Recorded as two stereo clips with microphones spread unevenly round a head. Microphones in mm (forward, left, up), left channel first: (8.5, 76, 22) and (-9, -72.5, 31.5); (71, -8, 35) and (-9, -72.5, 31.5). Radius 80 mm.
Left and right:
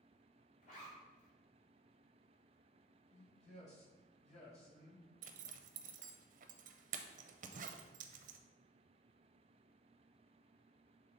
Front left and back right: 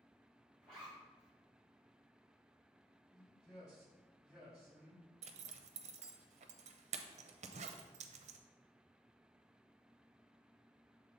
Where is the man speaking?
130° left, 2.5 m.